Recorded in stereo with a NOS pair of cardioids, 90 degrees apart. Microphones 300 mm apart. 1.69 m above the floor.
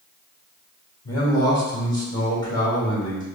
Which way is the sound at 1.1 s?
15° left.